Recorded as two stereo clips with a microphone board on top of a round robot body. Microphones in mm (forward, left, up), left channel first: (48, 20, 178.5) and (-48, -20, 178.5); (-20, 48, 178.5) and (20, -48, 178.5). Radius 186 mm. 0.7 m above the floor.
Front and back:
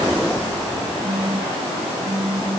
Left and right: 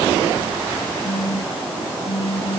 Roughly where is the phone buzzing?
Behind left.